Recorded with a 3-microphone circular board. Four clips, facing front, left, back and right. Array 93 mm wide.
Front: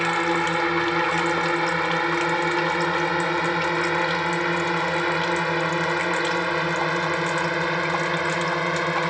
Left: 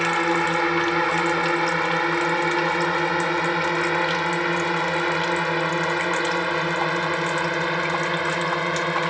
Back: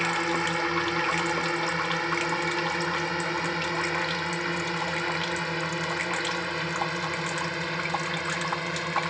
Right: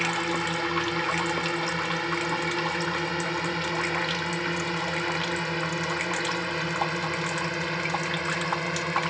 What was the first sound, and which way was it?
A drone, 55° left.